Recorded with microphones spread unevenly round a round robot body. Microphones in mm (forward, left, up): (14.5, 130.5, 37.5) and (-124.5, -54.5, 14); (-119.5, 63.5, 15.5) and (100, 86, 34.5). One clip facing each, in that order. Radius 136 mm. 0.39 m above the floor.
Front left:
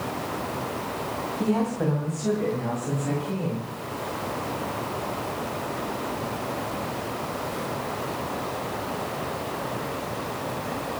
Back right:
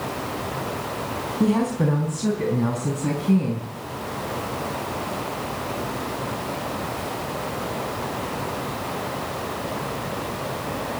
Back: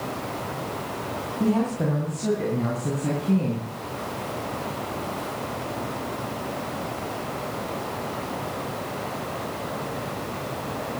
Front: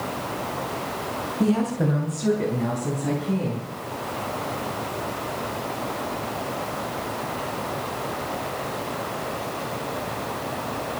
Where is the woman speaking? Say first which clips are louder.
Back right 4 dB, front 1 dB; 65° right, 3 m; by 3.7 s 110° right, 4.5 m.